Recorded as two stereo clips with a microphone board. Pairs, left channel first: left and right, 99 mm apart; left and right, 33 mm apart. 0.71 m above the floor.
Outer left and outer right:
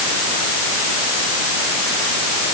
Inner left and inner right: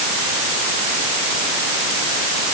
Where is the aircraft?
No aircraft in this recording.